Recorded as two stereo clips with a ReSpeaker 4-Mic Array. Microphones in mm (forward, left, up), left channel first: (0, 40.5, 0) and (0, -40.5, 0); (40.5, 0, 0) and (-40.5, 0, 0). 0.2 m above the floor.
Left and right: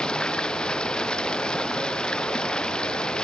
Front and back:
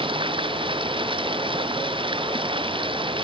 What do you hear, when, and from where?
0.0 s running water: 170° left